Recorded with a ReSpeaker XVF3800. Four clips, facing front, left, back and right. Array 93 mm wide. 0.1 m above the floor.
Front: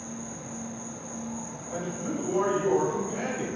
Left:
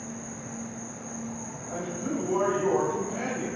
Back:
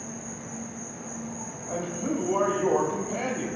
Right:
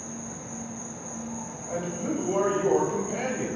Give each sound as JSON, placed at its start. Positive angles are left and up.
{"t": 0.0, "sound": "an insect", "azimuth_deg": 150, "distance_m": 2.0}
{"t": 1.7, "sound": "a man speaking", "azimuth_deg": -130, "distance_m": 1.8}